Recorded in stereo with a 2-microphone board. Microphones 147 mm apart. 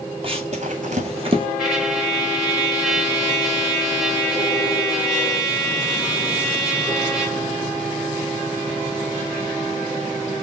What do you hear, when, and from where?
0.2 s running footsteps: 40° right (ahead or behind), 0.7 m; by 1.5 s 35° right (ahead or behind), 0.8 m
1.6 s a trumpet: centre (ahead or behind), 1.8 m